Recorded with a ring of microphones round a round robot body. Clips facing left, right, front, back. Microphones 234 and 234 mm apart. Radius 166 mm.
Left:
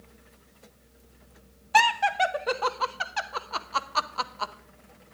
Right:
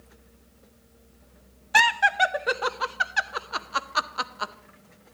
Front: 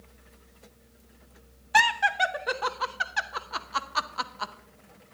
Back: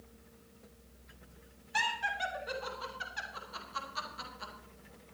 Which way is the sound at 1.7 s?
15° right.